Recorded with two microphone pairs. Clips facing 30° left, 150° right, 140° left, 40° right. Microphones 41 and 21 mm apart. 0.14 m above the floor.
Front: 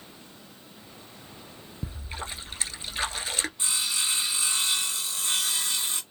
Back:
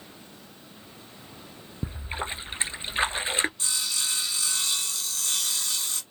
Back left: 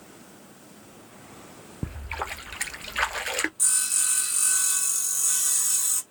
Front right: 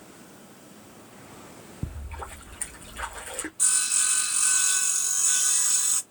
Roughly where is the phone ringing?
I don't hear a phone ringing.